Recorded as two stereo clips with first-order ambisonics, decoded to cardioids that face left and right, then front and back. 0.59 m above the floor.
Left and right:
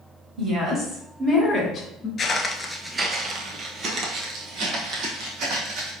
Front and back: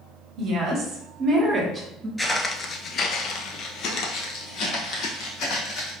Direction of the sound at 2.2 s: 80° left.